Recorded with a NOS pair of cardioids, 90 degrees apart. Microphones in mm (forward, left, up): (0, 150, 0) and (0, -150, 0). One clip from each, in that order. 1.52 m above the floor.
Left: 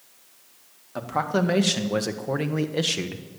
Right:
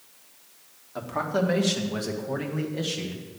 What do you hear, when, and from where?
0.9 s a man speaking: 25° left, 1.9 m; by 3.2 s 65° left, 1.5 m